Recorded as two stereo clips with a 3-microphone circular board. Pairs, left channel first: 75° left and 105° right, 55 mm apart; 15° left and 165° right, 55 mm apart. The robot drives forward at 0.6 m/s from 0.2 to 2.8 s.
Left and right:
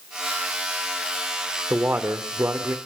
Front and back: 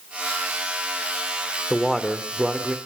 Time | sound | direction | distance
1.7 | a man speaking | 65° right | 1.6 m